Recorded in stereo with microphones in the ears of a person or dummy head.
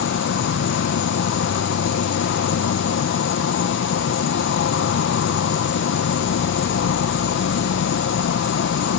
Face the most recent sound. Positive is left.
turn(degrees=65)  # may be behind; listen again after turning